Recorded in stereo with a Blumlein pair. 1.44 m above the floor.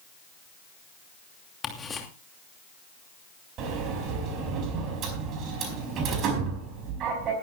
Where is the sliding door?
35° right, 4.5 m.